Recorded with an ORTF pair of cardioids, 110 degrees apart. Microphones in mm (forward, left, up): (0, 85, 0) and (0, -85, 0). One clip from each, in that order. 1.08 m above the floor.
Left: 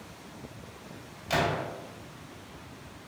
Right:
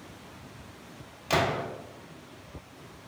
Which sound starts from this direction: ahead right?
A gunshot, at 1.3 s.